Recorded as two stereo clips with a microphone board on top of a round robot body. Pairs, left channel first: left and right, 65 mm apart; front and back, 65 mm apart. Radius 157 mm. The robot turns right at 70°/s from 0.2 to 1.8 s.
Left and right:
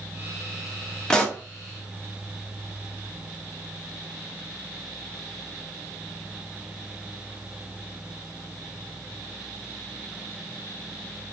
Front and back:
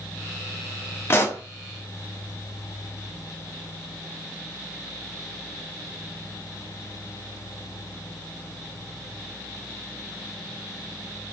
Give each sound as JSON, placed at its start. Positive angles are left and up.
{"t": 1.1, "sound": "a pop", "azimuth_deg": 15, "distance_m": 1.0}